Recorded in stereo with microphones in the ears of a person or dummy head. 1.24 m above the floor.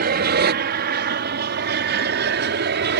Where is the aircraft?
45° right (ahead or behind); by 3.0 s 55° right (ahead or behind).